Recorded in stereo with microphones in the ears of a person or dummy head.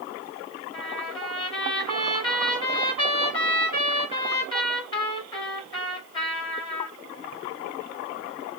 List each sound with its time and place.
0.7 s a trumpet: 25° left (ahead or behind), 2.5 m